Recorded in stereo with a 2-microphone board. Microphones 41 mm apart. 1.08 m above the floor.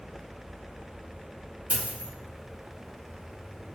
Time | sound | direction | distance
1.7 | a dropped coin | 40° right (ahead or behind) | 1.0 m